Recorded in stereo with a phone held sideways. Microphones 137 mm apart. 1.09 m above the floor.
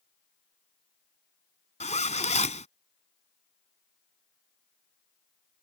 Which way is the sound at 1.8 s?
60° left (ahead or behind).